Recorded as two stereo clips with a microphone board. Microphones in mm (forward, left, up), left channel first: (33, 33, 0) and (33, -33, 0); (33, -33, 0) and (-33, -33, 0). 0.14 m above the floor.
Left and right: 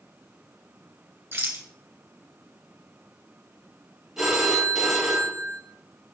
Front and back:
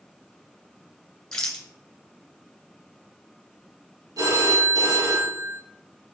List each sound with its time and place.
1.3 s a rattle: 75° right, 1.4 m
4.2 s a phone ringing: 170° right, 2.5 m